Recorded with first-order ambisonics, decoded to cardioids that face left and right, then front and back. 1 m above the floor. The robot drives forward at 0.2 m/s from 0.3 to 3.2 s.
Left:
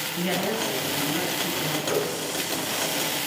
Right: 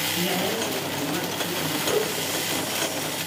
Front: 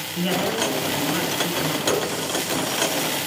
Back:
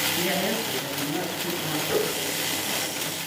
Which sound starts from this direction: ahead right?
A running tap, at 1.9 s.